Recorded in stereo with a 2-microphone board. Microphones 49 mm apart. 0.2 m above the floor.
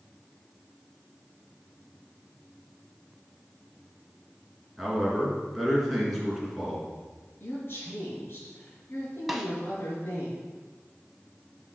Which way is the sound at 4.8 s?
Centre (ahead or behind).